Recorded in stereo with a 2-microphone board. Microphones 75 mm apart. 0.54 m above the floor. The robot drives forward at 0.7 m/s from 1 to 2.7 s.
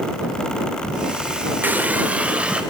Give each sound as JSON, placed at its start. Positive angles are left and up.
{"t": 1.6, "sound": "a running tap", "side_deg": -25, "distance_m": 1.0}